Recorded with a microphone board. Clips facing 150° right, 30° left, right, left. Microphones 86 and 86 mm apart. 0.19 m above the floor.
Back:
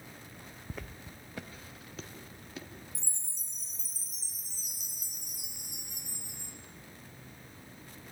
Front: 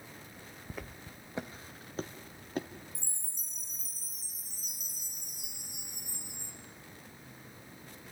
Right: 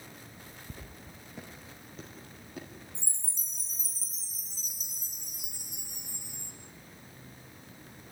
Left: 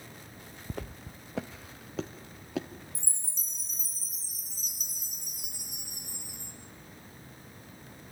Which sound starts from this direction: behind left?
Footsteps, at 0.7 s.